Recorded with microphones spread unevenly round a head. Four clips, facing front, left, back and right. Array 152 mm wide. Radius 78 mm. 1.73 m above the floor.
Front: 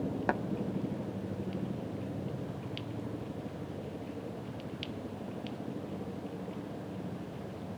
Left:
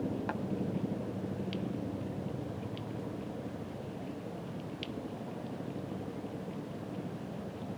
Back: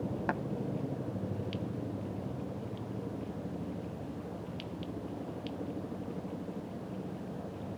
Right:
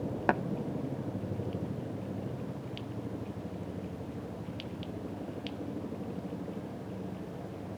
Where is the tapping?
65° right.